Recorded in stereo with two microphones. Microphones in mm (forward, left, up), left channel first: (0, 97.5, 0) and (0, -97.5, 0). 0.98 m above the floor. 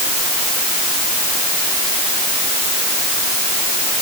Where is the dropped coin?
I don't hear a dropped coin.